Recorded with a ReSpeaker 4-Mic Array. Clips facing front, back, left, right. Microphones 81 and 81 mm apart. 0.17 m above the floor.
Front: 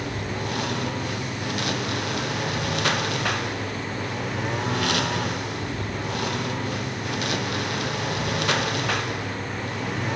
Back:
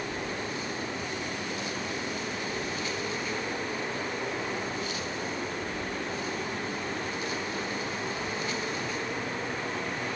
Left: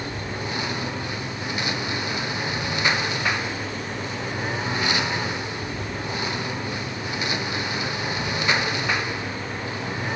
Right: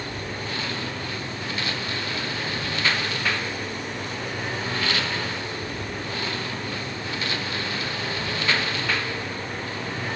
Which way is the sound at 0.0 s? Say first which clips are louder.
Front 4 dB, left 2 dB; 20° left.